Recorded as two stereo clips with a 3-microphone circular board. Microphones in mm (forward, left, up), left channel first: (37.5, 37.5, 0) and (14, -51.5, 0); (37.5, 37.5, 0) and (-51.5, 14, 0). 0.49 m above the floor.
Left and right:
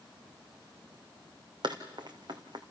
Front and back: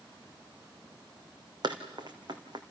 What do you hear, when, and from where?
1.6 s running footsteps: 135° right, 2 m